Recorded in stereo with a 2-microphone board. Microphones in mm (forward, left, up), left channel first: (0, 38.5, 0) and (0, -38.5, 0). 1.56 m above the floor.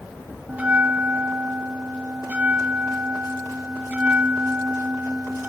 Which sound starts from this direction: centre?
A bell, at 0.5 s.